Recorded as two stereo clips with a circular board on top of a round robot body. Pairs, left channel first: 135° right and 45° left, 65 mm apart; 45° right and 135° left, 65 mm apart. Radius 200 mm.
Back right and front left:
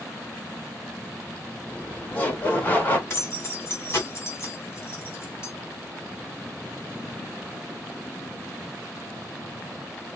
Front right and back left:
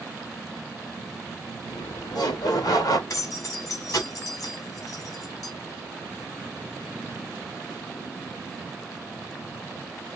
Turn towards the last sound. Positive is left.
turn(degrees=-80)